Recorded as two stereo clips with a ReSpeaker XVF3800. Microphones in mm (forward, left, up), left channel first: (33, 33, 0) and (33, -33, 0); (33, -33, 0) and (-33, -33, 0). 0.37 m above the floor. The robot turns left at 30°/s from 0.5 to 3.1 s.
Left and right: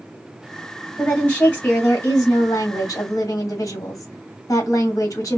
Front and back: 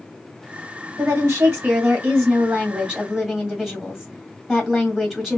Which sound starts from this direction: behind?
A woman speaking, at 1.0 s.